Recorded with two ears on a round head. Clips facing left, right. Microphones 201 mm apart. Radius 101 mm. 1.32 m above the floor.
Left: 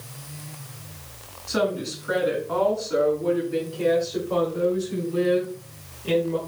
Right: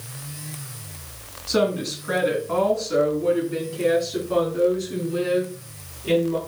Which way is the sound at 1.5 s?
40° right (ahead or behind).